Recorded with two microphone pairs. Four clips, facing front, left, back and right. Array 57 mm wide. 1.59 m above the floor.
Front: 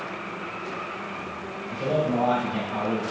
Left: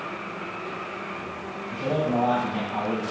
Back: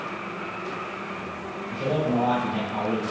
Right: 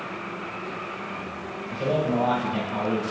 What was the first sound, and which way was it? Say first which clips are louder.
A man speaking: right 1 dB, even; 80° right.